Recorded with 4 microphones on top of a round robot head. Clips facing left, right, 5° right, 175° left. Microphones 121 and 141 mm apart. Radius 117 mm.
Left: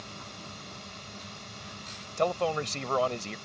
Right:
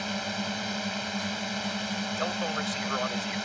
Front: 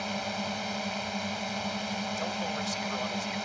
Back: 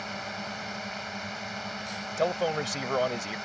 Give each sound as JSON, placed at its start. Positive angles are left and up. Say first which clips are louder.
{"t": 0.0, "sound": "a drone", "louder": "right 12 dB, front 4 dB", "azimuth_deg": -75}
{"t": 2.2, "sound": "a man speaking", "louder": "left 7 dB, back 6 dB", "azimuth_deg": 145}